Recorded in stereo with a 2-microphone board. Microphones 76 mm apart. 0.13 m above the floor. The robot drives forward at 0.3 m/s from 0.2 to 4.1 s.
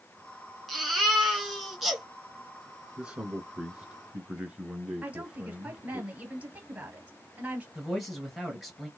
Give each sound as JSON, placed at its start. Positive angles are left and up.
{"t": 0.7, "sound": "a baby crying", "side_deg": 0, "distance_m": 2.0}
{"t": 3.0, "sound": "a man speaking", "side_deg": -10, "distance_m": 1.7}
{"t": 5.0, "sound": "a woman speaking", "side_deg": -20, "distance_m": 3.0}
{"t": 7.8, "sound": "a man speaking", "side_deg": 0, "distance_m": 2.5}